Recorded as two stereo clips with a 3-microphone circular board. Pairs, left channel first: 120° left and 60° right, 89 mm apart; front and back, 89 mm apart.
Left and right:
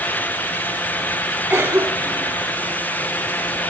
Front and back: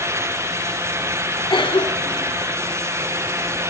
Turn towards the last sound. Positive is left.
turn(degrees=0)